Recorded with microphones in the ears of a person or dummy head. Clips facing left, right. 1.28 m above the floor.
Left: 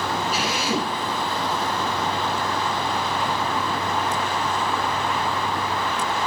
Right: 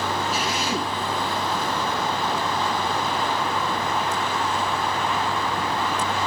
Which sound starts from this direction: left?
A drill, at 0.3 s.